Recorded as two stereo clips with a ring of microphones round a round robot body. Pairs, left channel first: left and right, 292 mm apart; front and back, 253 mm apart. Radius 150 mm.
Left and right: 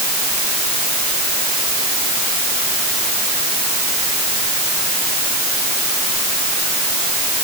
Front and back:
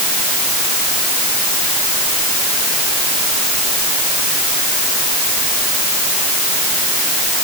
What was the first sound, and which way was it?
Only background noise.